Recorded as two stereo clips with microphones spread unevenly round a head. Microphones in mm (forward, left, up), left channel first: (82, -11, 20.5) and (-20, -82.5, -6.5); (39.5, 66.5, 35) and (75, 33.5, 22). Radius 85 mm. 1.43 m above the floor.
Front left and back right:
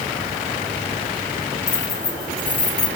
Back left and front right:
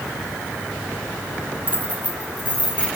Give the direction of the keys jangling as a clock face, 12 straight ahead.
12 o'clock.